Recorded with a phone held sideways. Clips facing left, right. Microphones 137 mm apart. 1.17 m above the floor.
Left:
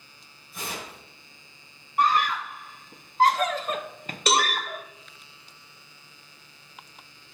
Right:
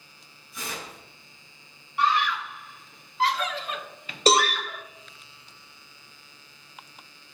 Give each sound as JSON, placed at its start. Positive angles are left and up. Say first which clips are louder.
{"t": 0.5, "sound": "tearing paper", "louder": "left 1 dB", "side_deg": 55, "distance_m": 5.0}
{"t": 2.0, "sound": "a scream", "louder": "left 1 dB", "side_deg": 40, "distance_m": 0.7}
{"t": 4.3, "sound": "a cowbell", "louder": "right 3 dB", "side_deg": -35, "distance_m": 1.4}